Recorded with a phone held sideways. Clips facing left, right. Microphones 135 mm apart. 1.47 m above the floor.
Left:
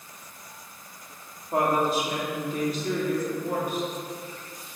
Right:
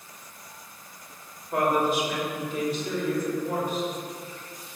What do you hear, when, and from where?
1.5 s a woman speaking: 25° left (ahead or behind), 3 m; by 3.9 s 60° left (ahead or behind), 4 m